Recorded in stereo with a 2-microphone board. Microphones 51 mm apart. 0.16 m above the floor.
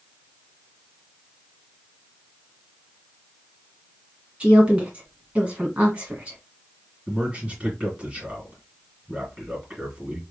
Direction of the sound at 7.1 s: 20° right (ahead or behind).